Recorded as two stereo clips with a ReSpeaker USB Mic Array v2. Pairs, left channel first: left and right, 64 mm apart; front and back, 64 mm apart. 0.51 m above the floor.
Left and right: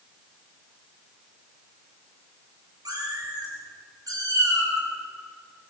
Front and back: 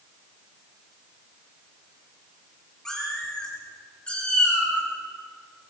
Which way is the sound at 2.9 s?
80° right.